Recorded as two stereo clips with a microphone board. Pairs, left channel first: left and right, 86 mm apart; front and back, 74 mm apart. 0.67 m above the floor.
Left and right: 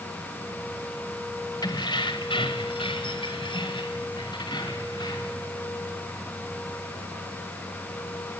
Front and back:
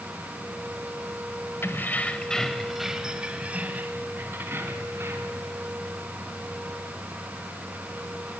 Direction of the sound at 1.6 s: 55° left.